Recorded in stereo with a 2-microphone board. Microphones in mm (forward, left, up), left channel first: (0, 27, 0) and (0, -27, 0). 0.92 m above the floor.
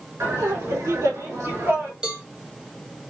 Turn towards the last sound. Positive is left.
turn(degrees=-20)  # may be behind; listen again after turning